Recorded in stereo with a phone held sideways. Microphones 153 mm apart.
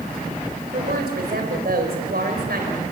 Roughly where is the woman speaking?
Right.